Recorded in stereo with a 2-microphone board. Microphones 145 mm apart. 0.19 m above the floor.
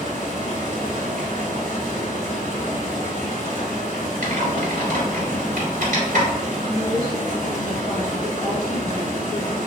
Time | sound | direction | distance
0.0 | running water | 60° right (ahead or behind) | 1.1 m
4.2 | typing on a keyboard | 60° right (ahead or behind) | 1.3 m
6.6 | a woman speaking | 30° left (ahead or behind) | 1.2 m